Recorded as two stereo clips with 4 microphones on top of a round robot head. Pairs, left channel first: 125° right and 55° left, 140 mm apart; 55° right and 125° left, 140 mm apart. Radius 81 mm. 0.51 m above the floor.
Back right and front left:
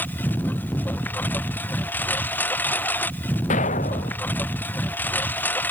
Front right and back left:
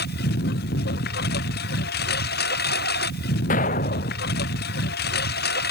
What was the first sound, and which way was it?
A lawn mower, 50° right.